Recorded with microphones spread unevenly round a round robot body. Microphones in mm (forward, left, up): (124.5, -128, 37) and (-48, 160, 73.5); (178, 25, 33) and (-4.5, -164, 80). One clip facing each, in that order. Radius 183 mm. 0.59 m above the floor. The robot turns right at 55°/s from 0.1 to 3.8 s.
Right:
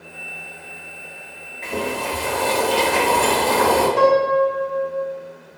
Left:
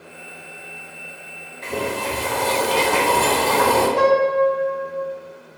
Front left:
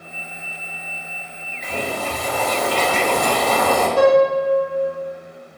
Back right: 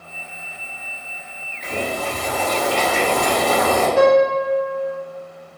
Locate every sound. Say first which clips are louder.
1.6 s boiling: even, back right 1 dB; 45° left, 1.0 m; by 3.9 s 165° left, 1.0 m
4.0 s a piano: right 1 dB, even; 125° right, 1.0 m